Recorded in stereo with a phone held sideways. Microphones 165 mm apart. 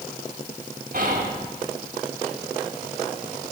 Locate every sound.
0.9 s whispering: 60° right (ahead or behind), 1.7 m